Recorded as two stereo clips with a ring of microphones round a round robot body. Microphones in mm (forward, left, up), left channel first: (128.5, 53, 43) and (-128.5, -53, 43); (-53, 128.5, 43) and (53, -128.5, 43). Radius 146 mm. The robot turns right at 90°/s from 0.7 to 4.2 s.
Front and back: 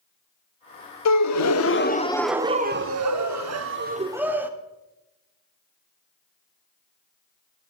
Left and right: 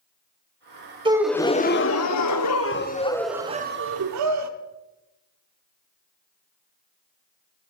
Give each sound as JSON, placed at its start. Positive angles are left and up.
{"t": 1.1, "sound": "a gasp", "azimuth_deg": 0, "distance_m": 0.8}